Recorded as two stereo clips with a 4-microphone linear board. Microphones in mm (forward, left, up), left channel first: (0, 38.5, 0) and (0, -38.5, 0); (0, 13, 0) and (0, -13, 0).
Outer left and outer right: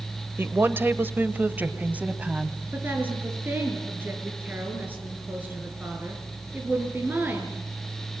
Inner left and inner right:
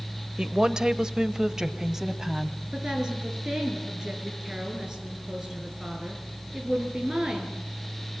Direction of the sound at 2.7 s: 25° right (ahead or behind).